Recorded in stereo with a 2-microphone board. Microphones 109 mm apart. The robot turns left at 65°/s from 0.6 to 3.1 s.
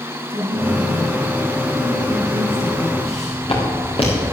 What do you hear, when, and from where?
0.3 s a woman speaking: 120° right, 3 m; by 2.9 s 90° left, 3 m
3.0 s footsteps: 60° left (ahead or behind), 4 m; by 4.2 s 55° left (ahead or behind), 5 m